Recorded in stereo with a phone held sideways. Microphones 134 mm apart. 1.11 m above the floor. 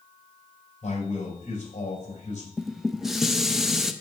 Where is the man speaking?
65° left (ahead or behind), 4.5 m.